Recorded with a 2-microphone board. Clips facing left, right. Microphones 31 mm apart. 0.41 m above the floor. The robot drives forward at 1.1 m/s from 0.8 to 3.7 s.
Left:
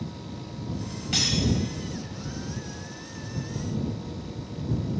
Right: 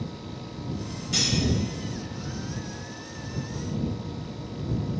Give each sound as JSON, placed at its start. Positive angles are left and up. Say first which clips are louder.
{"t": 1.1, "sound": "cutlery clinking", "louder": "even", "side_deg": 50, "distance_m": 1.5}